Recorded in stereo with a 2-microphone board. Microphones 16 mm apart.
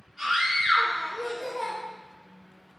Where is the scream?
40° right (ahead or behind), 3 m.